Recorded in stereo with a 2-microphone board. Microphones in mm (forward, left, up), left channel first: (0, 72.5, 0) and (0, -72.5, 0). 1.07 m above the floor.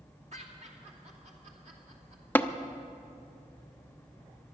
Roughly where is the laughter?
Right.